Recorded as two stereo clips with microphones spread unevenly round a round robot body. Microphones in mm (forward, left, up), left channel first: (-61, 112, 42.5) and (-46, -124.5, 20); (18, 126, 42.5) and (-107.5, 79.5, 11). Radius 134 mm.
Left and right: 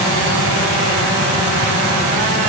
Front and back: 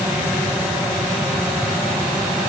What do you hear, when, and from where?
Only background noise.